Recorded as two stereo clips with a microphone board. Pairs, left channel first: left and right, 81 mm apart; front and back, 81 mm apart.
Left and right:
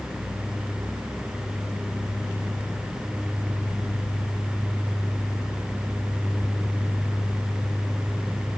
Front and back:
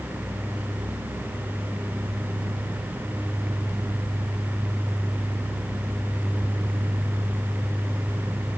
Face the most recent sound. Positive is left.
No sound to turn to.